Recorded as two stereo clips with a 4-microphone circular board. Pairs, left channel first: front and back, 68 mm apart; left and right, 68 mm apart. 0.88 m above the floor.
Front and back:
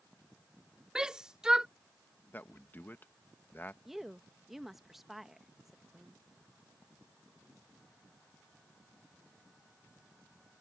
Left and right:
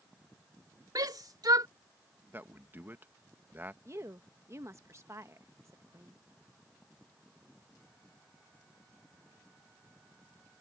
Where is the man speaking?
45° right.